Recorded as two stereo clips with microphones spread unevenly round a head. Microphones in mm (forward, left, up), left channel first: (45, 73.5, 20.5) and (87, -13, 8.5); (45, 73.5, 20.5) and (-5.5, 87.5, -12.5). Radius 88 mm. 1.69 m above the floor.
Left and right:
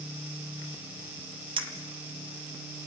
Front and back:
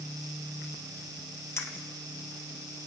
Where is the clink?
35° right, 1.6 m.